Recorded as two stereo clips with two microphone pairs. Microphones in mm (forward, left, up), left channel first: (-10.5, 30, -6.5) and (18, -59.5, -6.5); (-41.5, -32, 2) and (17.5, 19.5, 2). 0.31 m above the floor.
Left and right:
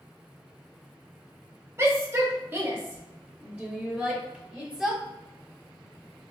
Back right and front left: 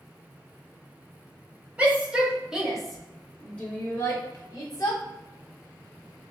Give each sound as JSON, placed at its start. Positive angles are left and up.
{"t": 1.8, "sound": "a shout", "azimuth_deg": -25, "distance_m": 1.2}